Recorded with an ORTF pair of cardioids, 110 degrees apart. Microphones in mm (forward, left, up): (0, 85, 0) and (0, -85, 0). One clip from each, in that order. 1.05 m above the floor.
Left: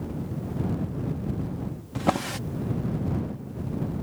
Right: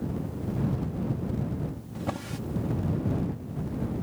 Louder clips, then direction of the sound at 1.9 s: Left 10 dB; 50° left.